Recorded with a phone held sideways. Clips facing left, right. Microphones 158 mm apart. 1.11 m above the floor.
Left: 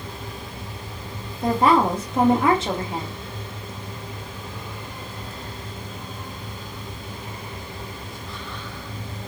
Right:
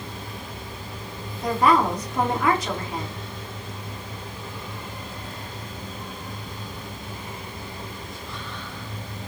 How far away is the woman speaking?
About 0.7 m.